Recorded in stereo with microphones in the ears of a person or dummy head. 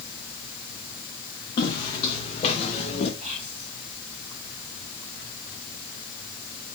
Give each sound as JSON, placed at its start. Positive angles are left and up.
{"t": 1.6, "sound": "footsteps", "side_deg": 25, "distance_m": 4.0}
{"t": 3.2, "sound": "whispering", "side_deg": -40, "distance_m": 5.5}